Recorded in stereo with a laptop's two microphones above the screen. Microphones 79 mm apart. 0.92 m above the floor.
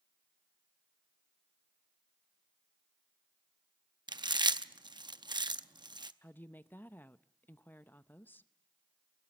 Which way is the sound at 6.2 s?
25° left (ahead or behind).